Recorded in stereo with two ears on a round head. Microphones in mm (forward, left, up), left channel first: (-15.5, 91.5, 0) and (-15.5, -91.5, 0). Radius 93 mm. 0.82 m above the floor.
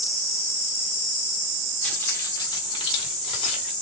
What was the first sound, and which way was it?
Keys jangling, 5° left (ahead or behind).